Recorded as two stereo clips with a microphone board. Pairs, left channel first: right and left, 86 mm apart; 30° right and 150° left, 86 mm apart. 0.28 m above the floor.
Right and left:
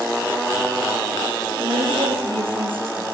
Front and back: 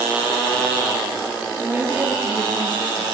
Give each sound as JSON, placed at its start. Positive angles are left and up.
{"t": 1.6, "sound": "a woman speaking", "azimuth_deg": 80, "distance_m": 6.5}